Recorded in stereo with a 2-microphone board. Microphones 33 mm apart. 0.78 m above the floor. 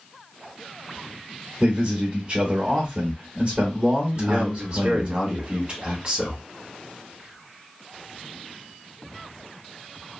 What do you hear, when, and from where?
1.6 s a man speaking: 25° right (ahead or behind), 1.1 m
4.2 s a man speaking: 30° right (ahead or behind), 1.5 m